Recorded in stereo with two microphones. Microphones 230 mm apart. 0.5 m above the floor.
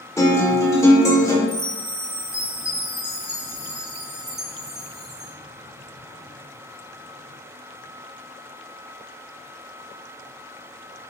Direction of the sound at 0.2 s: 15° left (ahead or behind).